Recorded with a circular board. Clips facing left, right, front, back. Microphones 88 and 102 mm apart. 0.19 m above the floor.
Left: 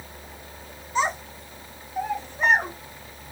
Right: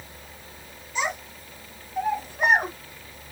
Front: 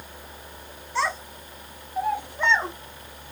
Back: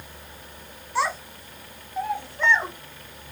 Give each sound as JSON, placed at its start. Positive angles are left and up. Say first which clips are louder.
{"t": 0.9, "sound": "a child speaking", "louder": "left 4 dB, back 1 dB", "azimuth_deg": 105, "distance_m": 0.9}